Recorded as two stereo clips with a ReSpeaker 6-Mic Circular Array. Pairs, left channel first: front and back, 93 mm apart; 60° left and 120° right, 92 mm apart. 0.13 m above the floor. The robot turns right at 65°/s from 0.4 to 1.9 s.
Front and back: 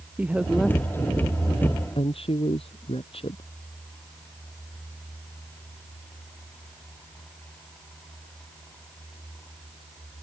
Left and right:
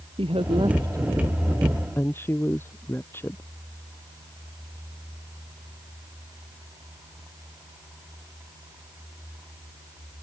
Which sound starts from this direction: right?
A woman speaking, at 0.2 s.